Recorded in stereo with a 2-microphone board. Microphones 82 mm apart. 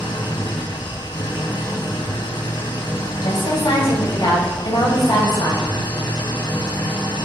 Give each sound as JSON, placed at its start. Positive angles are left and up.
{"t": 0.0, "sound": "an engine running", "side_deg": 75, "distance_m": 3.5}
{"t": 3.2, "sound": "a woman speaking", "side_deg": 70, "distance_m": 6.5}